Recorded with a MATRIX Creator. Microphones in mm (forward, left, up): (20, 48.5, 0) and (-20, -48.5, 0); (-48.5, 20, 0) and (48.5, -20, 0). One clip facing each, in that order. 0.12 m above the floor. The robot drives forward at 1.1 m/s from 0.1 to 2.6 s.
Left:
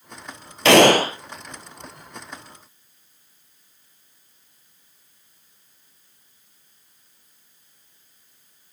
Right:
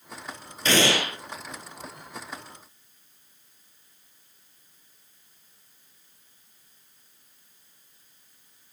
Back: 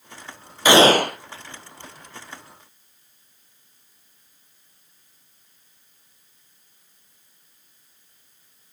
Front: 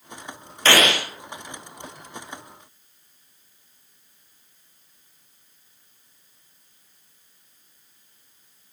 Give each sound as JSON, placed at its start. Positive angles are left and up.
{"t": 0.7, "sound": "a gunshot", "azimuth_deg": 80, "distance_m": 0.6}